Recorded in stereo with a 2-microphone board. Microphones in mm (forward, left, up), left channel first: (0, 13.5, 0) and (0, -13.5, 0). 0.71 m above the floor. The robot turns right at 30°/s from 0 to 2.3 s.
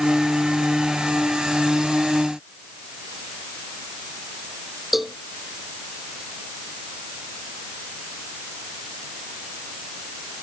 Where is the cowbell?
5° right (ahead or behind).